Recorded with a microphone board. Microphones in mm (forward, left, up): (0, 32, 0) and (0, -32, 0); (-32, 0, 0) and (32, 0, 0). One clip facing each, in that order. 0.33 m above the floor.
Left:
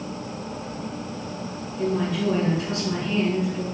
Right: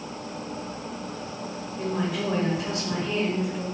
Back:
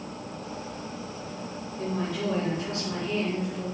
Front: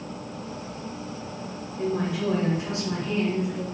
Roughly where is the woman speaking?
Ahead right.